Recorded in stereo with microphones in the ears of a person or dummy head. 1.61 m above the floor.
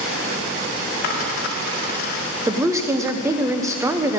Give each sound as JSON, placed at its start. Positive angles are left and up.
{"t": 1.0, "sound": "a dropped coin", "side_deg": 55, "distance_m": 1.9}
{"t": 2.5, "sound": "a woman speaking", "side_deg": -10, "distance_m": 0.8}